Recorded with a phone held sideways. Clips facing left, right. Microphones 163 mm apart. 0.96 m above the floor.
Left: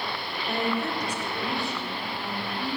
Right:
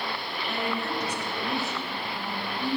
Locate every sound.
0.5 s a woman speaking: 35° left (ahead or behind), 0.9 m; by 2.8 s 15° right (ahead or behind), 2.5 m